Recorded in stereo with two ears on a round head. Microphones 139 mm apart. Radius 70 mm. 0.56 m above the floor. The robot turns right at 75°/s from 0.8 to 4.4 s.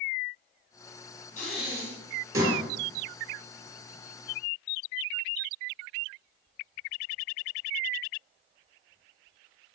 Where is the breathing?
50° left (ahead or behind), 3 m; by 2.6 s 40° right (ahead or behind), 3 m.